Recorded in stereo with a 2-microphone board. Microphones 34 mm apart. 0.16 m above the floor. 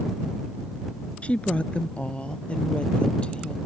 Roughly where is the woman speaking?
Left.